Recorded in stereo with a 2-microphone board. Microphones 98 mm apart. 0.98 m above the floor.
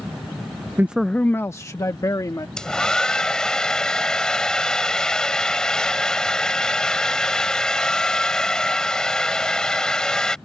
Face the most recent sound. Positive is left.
turn(degrees=5)  # may be behind; listen again after turning